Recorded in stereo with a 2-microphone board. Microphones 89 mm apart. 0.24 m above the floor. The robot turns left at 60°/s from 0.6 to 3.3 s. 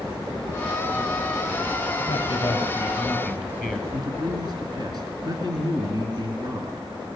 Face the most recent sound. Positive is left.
turn(degrees=-45)  # may be behind; listen again after turning